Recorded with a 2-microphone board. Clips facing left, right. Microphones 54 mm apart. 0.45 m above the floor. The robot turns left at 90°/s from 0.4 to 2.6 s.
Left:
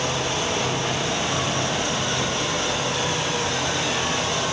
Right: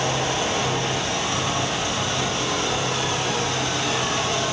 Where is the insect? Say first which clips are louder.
Right 1 dB; 145° right, 1.6 m; by 4.5 s 20° left, 1.6 m.